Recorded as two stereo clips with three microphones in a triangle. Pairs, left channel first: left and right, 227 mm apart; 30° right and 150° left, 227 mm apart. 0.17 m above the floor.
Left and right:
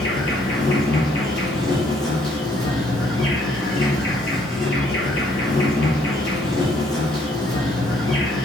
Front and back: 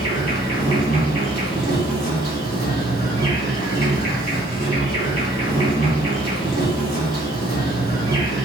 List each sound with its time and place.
0.0 s an insect: 5° left, 2 m